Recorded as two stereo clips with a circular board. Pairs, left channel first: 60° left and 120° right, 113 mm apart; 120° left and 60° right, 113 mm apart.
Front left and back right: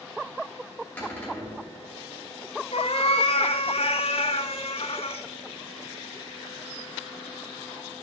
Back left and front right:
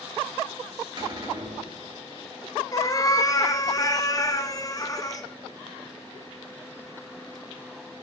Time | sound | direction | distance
1.0 | a cupboard door | 20° right | 3.5 m
2.7 | a cat meowing | 70° left | 0.8 m